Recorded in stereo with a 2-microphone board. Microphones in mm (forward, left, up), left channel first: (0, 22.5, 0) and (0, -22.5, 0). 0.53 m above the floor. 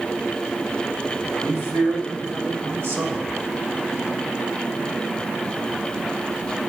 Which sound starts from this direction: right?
A man speaking, at 1.4 s.